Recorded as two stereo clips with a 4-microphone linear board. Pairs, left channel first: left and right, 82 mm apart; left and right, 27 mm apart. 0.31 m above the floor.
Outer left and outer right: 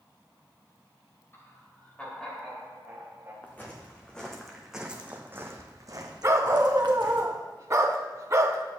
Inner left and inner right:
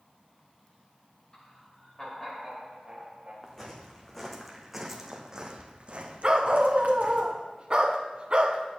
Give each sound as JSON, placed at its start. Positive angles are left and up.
{"t": 1.3, "sound": "laughter", "side_deg": 30, "distance_m": 1.8}
{"t": 3.4, "sound": "footsteps", "side_deg": 20, "distance_m": 1.7}
{"t": 6.2, "sound": "a dog barking", "side_deg": -40, "distance_m": 0.7}